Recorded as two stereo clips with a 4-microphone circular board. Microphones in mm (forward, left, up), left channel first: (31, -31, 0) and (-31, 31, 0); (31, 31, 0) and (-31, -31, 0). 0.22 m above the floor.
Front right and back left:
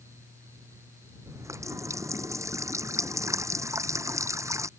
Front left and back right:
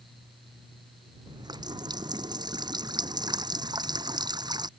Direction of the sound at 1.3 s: 170° right.